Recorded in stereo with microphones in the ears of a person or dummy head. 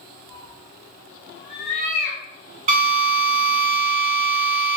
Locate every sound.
0.3 s a cat meowing: 35° right (ahead or behind), 1.4 m; by 2.2 s 15° left (ahead or behind), 1.6 m
2.7 s a drill: 35° right (ahead or behind), 1.4 m